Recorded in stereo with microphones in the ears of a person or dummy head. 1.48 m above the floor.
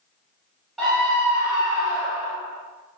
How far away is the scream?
About 1.0 m.